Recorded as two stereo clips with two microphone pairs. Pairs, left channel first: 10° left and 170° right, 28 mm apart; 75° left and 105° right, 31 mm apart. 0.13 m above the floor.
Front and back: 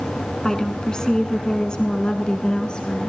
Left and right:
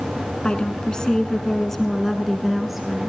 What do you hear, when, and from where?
0.4 s a woman speaking: 60° left, 1.4 m; by 3.1 s 30° right, 1.7 m